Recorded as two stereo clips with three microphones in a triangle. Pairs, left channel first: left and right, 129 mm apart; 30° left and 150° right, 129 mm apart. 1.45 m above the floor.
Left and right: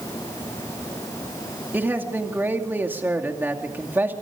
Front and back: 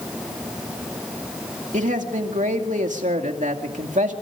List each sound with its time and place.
1.7 s a man speaking: 165° right, 2.5 m